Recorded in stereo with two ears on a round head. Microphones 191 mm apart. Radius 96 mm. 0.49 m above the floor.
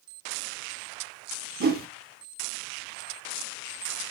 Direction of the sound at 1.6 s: 45° right (ahead or behind).